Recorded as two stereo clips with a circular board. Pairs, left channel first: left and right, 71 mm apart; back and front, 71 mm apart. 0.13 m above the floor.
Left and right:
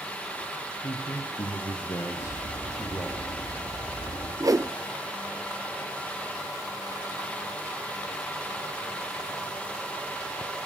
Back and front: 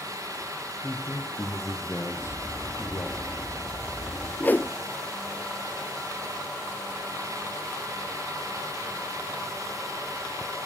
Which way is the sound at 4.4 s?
120° right.